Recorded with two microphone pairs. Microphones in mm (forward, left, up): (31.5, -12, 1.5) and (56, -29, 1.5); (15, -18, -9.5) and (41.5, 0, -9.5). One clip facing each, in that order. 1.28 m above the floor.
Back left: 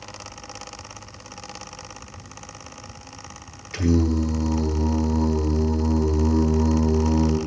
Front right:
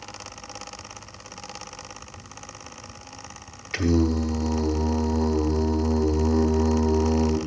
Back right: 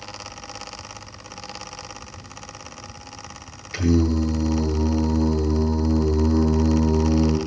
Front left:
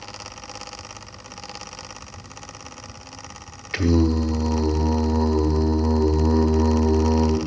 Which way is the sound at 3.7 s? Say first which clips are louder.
Back left 1 dB, front left 1 dB; 20° left.